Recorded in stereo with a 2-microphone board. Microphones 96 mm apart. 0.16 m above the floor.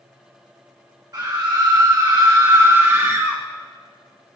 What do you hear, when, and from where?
1.1 s a scream: 45° right (ahead or behind), 1.9 m; by 3.4 s 20° right (ahead or behind), 1.7 m